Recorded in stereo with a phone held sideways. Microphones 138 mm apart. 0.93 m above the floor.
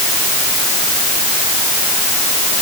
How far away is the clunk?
I don't hear a clunk.